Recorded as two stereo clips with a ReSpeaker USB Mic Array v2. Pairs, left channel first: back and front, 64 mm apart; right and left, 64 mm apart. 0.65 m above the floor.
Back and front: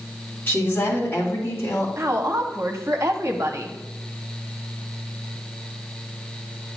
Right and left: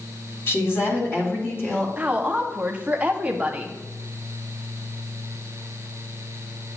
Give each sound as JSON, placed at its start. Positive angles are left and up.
{"t": 0.5, "sound": "a woman speaking", "azimuth_deg": -130, "distance_m": 1.7}
{"t": 2.0, "sound": "a woman speaking", "azimuth_deg": 25, "distance_m": 1.0}